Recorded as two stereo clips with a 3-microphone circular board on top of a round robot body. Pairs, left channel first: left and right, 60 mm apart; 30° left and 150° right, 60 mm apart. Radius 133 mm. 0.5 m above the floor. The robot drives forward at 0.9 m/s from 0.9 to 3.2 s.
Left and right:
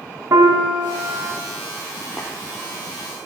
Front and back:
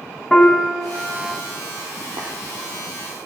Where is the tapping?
175° left, 3.5 m.